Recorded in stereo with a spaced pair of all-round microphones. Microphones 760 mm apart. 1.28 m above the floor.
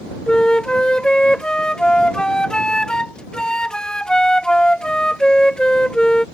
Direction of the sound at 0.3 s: Centre (ahead or behind).